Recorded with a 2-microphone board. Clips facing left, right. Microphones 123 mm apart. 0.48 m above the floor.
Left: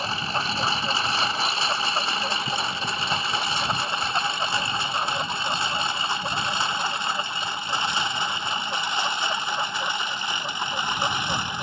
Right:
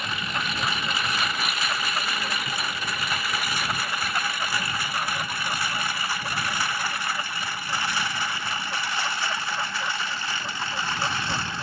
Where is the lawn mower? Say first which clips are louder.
Left 3 dB; 30° left (ahead or behind); by 11.6 s 15° left (ahead or behind).